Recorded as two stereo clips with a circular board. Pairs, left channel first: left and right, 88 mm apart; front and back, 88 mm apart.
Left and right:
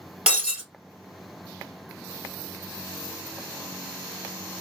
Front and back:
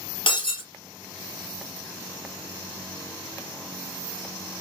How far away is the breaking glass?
About 1.6 m.